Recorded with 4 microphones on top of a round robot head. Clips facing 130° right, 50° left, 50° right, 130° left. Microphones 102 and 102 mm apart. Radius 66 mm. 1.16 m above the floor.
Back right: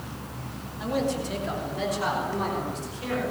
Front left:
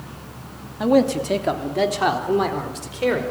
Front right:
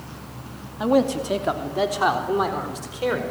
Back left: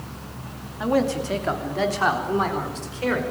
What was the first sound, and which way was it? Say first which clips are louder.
A man speaking: front left 10 dB, front right 2 dB; 20° left.